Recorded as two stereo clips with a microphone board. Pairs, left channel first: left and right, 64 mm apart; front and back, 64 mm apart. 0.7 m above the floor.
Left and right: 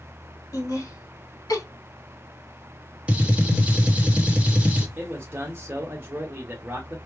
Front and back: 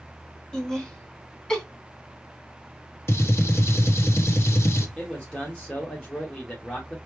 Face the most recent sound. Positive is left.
turn(degrees=-60)